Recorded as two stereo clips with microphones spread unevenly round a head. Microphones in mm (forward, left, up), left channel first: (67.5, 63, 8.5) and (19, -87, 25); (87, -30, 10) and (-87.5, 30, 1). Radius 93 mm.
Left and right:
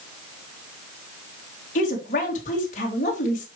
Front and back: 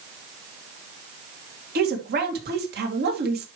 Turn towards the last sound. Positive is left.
turn(degrees=125)